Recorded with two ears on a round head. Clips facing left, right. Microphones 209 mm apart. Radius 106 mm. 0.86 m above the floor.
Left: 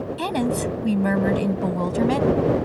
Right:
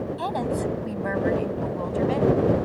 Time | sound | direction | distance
0.2 | a woman speaking | 40° left (ahead or behind) | ?